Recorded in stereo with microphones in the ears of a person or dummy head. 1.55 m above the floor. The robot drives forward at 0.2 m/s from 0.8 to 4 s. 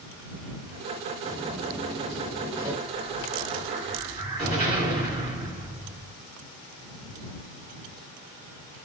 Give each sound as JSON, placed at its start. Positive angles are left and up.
{"t": 1.2, "sound": "footsteps", "side_deg": -30, "distance_m": 4.5}
{"t": 2.9, "sound": "an explosion", "side_deg": -30, "distance_m": 4.0}